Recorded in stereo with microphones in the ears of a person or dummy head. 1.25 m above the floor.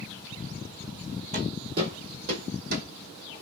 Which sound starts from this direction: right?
Footsteps, at 1.3 s.